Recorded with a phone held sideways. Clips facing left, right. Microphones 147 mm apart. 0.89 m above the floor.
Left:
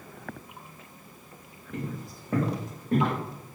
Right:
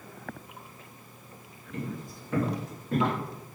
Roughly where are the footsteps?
Left.